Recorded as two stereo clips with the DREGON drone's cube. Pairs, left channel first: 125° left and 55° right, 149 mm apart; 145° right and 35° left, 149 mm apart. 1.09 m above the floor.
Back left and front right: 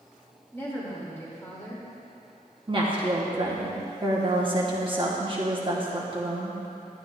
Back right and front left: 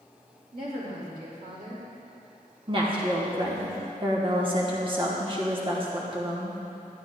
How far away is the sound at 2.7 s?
About 1.1 m.